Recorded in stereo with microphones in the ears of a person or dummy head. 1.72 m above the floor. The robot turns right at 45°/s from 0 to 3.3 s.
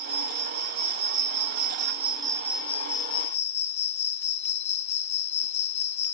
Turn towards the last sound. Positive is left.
turn(degrees=35)